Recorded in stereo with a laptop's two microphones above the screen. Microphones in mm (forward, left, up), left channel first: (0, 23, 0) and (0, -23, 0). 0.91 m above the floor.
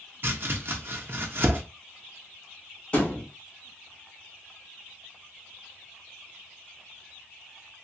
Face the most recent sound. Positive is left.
turn(degrees=25)  # may be behind; listen again after turning